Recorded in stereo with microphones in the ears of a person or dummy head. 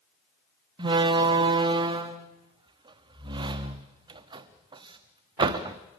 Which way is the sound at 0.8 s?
30° right (ahead or behind).